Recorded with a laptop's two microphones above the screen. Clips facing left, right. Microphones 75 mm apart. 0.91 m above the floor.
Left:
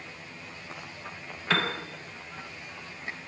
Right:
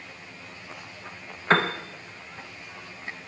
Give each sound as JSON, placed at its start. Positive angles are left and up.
{"t": 1.5, "sound": "a piano", "side_deg": -35, "distance_m": 0.6}